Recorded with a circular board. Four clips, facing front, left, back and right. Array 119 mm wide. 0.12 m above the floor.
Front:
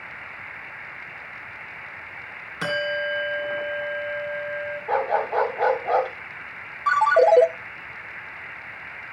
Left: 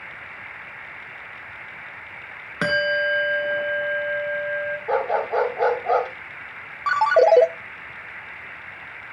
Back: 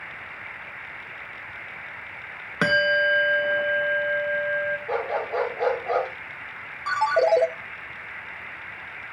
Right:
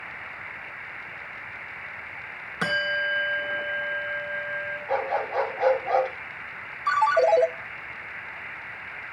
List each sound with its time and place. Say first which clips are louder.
2.6 s a bell: left 5 dB, back 5 dB; 150° left, 1.7 m
4.9 s a dog barking: left 4 dB, front 8 dB; 75° left, 6.5 m
6.9 s a ringtone: left 4 dB, front 4 dB; 75° left, 0.9 m